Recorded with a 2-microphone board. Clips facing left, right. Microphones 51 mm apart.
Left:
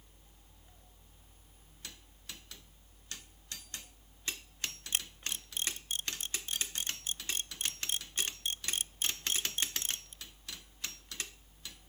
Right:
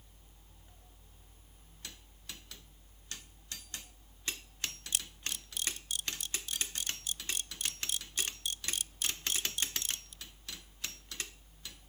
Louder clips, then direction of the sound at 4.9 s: Left 2 dB; 35° left (ahead or behind).